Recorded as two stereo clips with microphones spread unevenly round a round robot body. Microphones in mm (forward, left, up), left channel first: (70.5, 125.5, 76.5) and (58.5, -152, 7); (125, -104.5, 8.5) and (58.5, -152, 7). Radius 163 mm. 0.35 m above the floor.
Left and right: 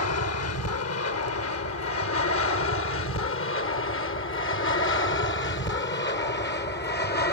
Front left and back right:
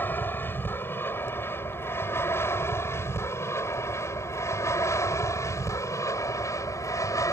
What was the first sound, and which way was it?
An aircraft, 95° left.